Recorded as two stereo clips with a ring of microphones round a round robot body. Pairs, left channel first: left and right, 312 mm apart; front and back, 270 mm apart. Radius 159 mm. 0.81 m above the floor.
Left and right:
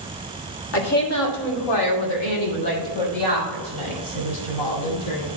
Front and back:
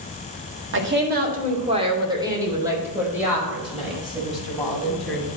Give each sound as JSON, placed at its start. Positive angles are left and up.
{"t": 0.7, "sound": "a woman speaking", "azimuth_deg": 140, "distance_m": 1.9}